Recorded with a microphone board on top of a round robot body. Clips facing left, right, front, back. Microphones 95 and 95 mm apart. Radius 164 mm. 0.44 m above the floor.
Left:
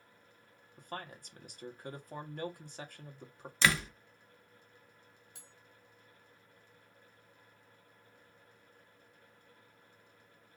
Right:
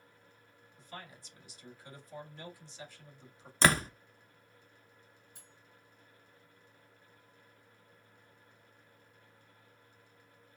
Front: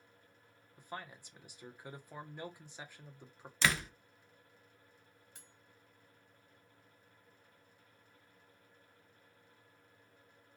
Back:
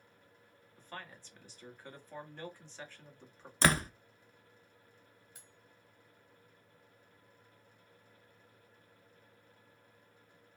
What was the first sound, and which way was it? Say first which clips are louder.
A man speaking: left 5 dB, front 2 dB; 75° left.